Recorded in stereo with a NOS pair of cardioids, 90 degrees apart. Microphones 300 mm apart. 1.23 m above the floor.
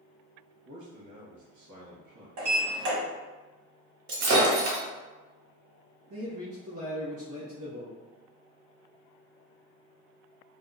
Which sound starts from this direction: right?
A man speaking, at 6.1 s.